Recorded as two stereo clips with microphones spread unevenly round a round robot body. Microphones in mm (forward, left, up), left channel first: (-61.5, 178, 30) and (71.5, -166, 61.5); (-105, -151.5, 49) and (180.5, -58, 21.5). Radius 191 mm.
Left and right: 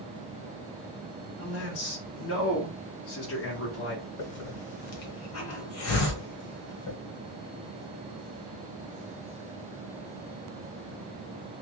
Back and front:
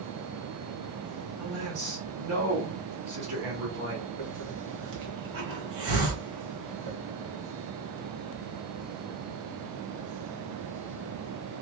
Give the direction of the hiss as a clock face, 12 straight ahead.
10 o'clock.